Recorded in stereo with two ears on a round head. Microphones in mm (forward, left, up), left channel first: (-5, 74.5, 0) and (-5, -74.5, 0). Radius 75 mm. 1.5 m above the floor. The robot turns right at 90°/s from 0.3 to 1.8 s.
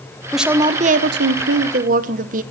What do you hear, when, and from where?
0.3 s a woman speaking: 175° left, 1.2 m; by 2.4 s 50° right, 1.2 m